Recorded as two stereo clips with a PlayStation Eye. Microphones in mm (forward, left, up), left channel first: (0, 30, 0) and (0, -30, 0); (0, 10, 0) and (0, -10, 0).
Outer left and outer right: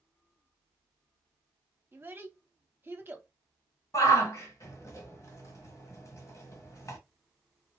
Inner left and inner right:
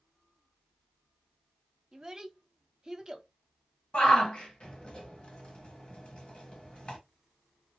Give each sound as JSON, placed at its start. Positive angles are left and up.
{"t": 1.9, "sound": "a child speaking", "side_deg": -35, "distance_m": 0.8}
{"t": 3.9, "sound": "a shout", "side_deg": 55, "distance_m": 1.3}